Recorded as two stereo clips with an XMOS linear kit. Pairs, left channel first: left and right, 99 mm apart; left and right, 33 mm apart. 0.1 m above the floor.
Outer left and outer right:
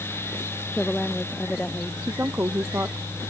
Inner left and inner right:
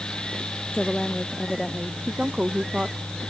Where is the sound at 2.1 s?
20° right (ahead or behind).